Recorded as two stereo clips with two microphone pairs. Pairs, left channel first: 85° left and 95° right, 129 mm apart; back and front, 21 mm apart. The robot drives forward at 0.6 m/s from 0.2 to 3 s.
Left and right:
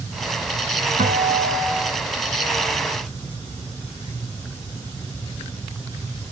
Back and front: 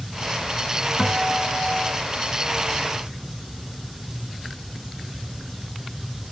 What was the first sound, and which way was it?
A guitar, 100° right.